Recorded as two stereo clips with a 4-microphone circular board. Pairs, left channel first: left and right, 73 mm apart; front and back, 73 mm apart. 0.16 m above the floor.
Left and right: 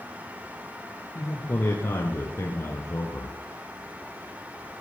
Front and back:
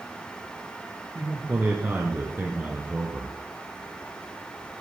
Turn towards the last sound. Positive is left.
turn(degrees=120)